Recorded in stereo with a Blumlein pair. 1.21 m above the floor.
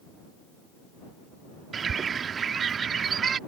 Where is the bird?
20° right.